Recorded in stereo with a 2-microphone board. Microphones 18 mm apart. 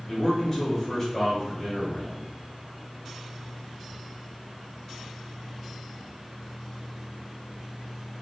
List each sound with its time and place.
0.1 s a man speaking: 15° left (ahead or behind), 1.4 m